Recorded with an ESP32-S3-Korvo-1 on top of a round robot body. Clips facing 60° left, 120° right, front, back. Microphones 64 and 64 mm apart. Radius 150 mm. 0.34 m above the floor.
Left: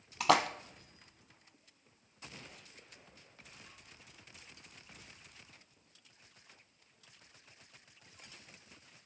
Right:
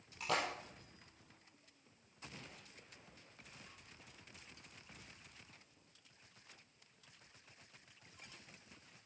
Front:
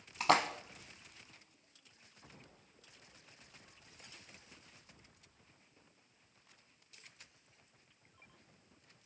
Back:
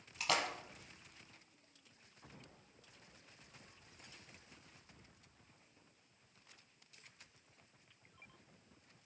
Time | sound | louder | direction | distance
0.2 | a splash | left 10 dB, front 7 dB | 55° left | 0.5 m